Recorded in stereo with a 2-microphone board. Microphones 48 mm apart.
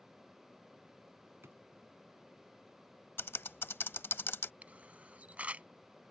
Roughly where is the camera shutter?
Right.